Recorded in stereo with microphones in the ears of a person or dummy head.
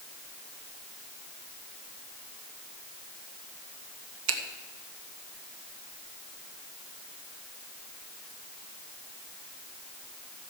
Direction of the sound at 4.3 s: 70° right (ahead or behind).